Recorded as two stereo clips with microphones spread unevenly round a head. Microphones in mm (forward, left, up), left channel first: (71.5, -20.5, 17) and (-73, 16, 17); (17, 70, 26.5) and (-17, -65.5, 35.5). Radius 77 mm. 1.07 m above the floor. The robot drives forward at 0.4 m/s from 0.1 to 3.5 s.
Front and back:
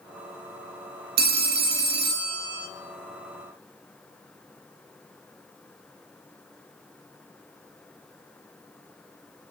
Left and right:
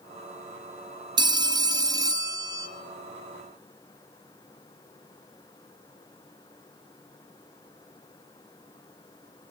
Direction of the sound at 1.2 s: 165° right.